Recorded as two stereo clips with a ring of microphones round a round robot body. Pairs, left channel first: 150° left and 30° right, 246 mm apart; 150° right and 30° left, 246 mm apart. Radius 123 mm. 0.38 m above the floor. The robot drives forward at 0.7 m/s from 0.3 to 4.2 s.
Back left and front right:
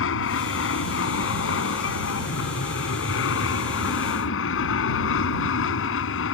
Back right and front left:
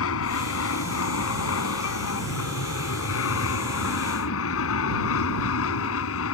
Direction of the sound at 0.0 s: 175° right.